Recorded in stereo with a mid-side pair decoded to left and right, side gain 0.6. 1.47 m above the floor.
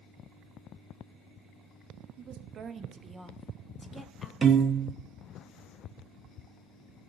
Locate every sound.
2.2 s a woman speaking: 60° right, 1.0 m; by 4.3 s 25° left, 1.4 m
4.4 s a piano: 30° right, 0.7 m